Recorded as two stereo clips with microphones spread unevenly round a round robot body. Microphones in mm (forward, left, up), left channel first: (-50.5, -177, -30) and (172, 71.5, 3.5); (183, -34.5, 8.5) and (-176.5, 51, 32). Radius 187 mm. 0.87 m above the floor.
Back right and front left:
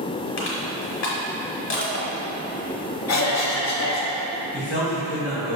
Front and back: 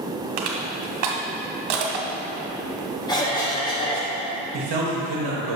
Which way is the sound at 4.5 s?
175° left.